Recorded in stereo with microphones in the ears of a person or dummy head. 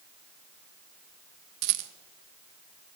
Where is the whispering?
I don't hear whispering.